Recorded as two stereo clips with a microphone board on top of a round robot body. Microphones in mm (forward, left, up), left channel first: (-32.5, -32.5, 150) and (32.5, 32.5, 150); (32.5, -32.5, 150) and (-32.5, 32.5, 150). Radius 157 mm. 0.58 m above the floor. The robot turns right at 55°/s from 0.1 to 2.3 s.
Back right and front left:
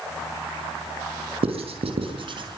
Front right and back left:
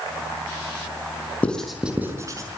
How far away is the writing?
About 5 m.